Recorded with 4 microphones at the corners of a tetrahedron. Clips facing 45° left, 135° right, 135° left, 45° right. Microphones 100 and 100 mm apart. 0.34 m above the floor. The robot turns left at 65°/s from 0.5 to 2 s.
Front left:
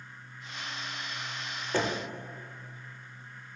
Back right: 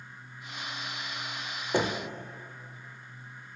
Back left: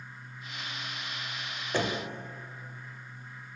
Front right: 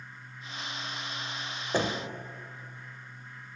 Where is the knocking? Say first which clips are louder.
Back right 2 dB, front right 1 dB; 85° right, 0.6 m; by 2.1 s 100° right, 0.6 m.